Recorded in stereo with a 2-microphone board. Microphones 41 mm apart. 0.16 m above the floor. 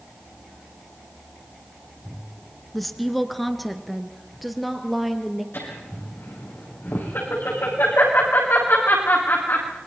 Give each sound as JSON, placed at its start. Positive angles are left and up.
{"t": 2.7, "sound": "a woman speaking", "side_deg": 5, "distance_m": 1.6}
{"t": 5.5, "sound": "laughter", "side_deg": 70, "distance_m": 8.5}